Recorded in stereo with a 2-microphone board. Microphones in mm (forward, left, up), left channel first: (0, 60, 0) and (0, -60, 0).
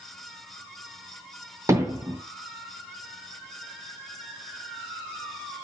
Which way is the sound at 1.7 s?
25° right (ahead or behind).